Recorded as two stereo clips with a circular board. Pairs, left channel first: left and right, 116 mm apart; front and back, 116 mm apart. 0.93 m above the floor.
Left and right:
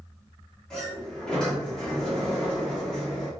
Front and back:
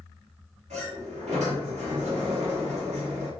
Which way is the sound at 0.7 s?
175° left.